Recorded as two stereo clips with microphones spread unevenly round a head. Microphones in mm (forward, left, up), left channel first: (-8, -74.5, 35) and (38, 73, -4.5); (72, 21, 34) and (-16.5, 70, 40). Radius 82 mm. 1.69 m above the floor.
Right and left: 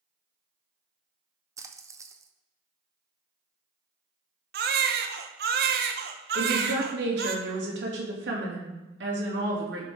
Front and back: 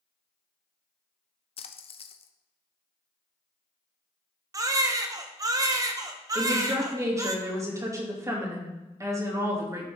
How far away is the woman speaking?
About 3 m.